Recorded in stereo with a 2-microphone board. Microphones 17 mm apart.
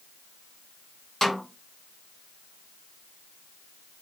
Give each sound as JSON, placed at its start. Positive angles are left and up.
{"t": 1.2, "sound": "a snare drum", "side_deg": 20, "distance_m": 1.2}